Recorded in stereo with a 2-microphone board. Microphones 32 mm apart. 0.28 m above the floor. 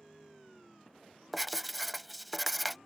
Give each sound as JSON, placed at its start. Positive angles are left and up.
{"t": 1.3, "sound": "writing", "side_deg": 5}